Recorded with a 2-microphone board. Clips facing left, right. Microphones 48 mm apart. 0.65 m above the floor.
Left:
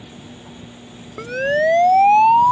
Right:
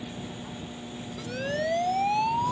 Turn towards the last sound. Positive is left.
turn(degrees=55)  # may be behind; listen again after turning